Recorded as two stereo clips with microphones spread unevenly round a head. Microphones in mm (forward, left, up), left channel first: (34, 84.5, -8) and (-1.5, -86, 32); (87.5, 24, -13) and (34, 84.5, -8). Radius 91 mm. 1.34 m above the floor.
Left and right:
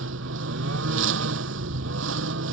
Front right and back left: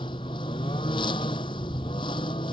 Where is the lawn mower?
100° right.